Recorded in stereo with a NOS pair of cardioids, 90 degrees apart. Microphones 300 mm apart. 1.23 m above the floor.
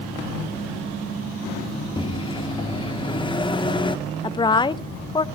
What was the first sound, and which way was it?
A microwave, 15° left.